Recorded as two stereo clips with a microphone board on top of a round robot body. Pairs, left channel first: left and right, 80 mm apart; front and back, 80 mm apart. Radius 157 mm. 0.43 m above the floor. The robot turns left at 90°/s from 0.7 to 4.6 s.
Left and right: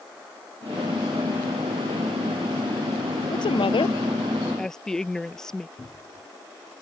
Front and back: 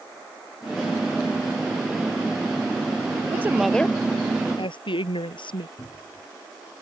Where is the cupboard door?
40° left.